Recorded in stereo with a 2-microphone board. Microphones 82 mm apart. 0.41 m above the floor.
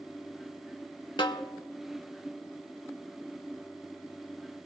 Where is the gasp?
I don't hear a gasp.